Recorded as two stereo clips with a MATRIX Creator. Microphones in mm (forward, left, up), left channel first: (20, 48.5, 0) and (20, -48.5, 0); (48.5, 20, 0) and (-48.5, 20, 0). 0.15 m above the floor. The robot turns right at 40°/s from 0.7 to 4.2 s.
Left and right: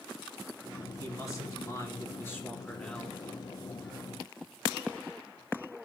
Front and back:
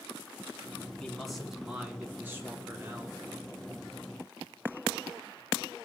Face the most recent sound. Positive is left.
turn(degrees=-155)